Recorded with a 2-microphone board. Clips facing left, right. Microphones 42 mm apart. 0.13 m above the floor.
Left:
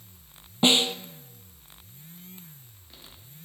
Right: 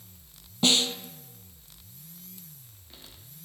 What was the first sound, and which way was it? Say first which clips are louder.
A snare drum: left 3 dB; 30° left (ahead or behind).